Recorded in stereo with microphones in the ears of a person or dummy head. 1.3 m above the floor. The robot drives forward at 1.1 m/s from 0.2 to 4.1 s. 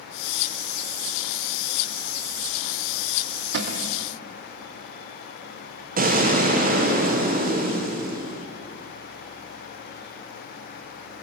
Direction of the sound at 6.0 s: 45° right (ahead or behind).